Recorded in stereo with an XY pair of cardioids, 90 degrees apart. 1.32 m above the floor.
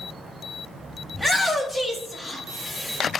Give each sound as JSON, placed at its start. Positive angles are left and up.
{"t": 1.1, "sound": "a shout", "azimuth_deg": 15, "distance_m": 0.6}